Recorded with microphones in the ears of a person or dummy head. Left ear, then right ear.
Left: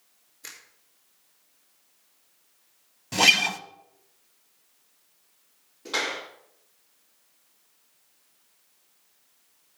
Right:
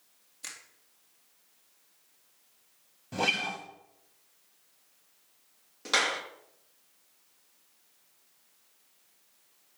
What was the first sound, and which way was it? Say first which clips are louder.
A finger snap: even; 70° right (ahead or behind).